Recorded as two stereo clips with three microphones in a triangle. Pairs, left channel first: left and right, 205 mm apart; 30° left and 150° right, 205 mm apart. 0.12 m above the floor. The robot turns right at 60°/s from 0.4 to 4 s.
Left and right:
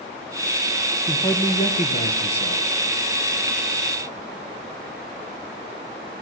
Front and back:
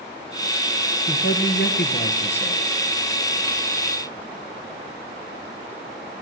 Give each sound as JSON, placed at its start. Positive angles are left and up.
{"t": 1.1, "sound": "a man speaking", "azimuth_deg": 5, "distance_m": 2.5}